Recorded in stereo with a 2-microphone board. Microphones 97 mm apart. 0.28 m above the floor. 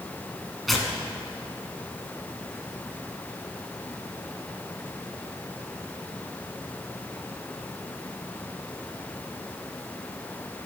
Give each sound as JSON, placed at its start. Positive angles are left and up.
{"t": 0.7, "sound": "tearing paper", "side_deg": 0, "distance_m": 1.3}